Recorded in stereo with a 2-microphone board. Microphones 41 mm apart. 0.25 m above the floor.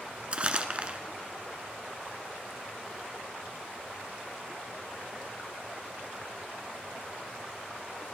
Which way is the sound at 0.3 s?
30° right (ahead or behind).